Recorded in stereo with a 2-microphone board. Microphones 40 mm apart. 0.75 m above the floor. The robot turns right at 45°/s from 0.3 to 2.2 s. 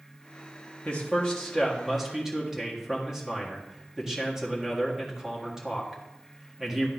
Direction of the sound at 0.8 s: 135° left.